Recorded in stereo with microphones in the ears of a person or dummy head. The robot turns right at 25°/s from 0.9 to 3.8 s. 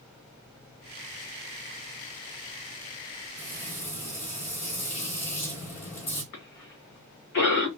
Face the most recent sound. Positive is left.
turn(degrees=60)  # may be behind; listen again after turning